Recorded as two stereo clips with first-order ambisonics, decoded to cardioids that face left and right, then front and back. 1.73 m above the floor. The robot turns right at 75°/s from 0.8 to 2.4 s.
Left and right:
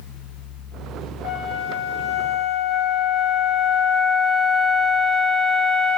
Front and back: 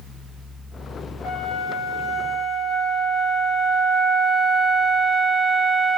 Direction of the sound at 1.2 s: 30° left.